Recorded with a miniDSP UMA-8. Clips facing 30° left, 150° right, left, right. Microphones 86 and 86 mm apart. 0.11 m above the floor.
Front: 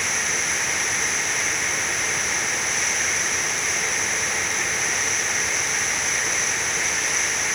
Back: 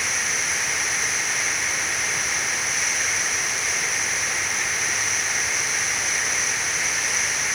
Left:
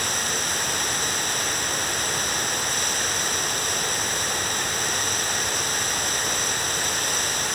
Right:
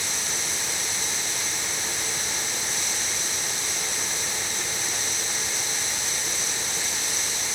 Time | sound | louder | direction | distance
0.0 | running water | front 1 dB, left 5 dB | 120° left | ?